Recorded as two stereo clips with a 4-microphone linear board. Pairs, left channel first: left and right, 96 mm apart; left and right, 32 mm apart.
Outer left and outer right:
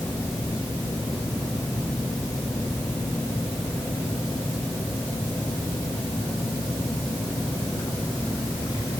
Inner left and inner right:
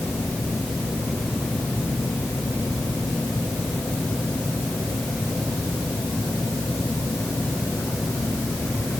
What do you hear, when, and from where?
Only background noise.